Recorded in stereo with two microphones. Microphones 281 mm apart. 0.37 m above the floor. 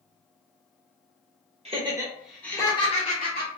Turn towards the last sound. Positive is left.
turn(degrees=40)  # may be behind; listen again after turning